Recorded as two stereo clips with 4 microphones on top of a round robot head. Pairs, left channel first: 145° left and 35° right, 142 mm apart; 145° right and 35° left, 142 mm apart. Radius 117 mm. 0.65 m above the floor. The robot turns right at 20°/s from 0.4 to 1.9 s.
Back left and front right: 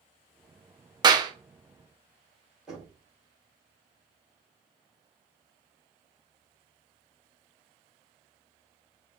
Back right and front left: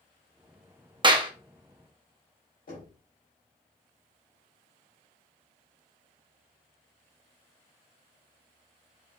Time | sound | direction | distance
1.0 | a clap | 5° left | 1.0 m
2.7 | knocking | 120° right | 3 m